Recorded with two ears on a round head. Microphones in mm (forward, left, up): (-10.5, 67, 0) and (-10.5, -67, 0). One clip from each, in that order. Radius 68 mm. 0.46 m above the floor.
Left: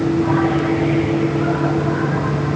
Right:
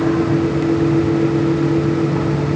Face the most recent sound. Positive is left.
No sound to turn to.